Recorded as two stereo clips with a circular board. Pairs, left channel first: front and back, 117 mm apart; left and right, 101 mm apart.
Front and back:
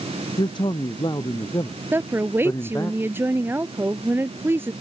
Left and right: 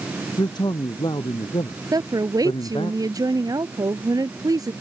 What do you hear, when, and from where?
0.4 s a man speaking: 45° left; by 2.9 s 65° left
1.9 s a woman speaking: 115° right